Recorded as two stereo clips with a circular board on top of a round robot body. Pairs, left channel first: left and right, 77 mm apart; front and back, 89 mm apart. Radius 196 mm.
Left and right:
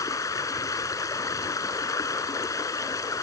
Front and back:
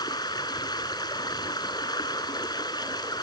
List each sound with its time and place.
0.0 s running water: 45° left